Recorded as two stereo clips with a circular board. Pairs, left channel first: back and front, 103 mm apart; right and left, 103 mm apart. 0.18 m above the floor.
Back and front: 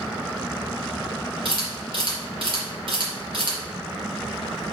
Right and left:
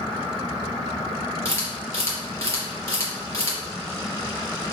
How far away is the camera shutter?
About 3.5 m.